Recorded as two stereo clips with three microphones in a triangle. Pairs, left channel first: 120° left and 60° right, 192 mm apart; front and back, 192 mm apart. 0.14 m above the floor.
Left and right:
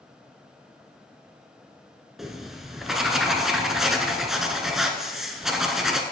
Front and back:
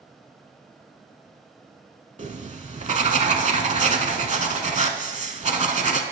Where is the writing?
150° right, 0.5 m.